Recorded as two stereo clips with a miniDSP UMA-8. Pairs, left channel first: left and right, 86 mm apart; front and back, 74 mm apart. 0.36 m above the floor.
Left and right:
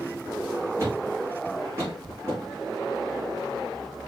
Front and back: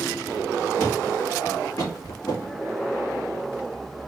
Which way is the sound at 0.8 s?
35° right.